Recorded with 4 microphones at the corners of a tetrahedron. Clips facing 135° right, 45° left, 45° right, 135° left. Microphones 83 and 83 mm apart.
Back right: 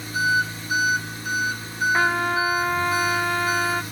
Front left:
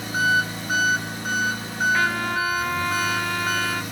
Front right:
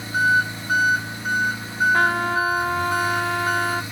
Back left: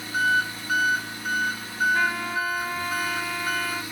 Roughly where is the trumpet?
Right.